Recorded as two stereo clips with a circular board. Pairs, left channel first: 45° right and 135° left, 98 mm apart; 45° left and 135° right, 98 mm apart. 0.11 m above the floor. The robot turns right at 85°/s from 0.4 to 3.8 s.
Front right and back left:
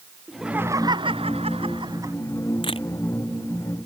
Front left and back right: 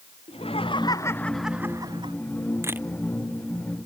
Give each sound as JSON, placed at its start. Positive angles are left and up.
{"t": 0.3, "sound": "laughter", "azimuth_deg": 50}
{"t": 2.6, "sound": "a camera shutter", "azimuth_deg": -75}